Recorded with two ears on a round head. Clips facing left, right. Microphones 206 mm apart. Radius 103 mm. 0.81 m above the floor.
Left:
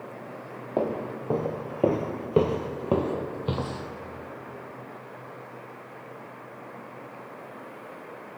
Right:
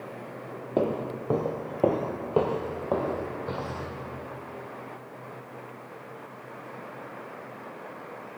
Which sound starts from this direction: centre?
Footsteps, at 0.8 s.